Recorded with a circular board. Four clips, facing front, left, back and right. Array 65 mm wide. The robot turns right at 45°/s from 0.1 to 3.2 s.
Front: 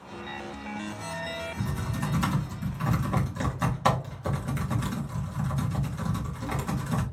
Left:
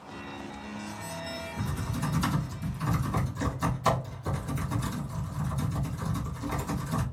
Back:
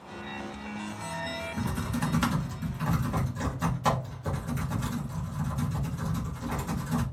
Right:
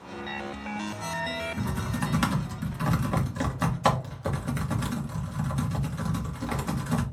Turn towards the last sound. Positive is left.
turn(degrees=-65)